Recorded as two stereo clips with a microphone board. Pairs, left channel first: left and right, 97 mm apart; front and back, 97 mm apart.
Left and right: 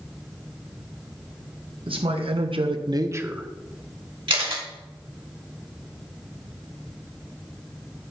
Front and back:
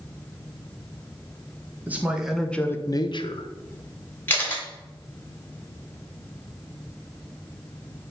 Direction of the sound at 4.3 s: 70° right.